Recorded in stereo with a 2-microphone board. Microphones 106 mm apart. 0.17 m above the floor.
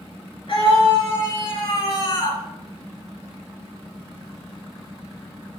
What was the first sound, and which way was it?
A scream, 60° left (ahead or behind).